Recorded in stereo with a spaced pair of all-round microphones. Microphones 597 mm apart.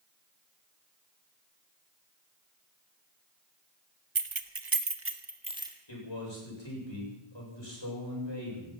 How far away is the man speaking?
About 7.5 m.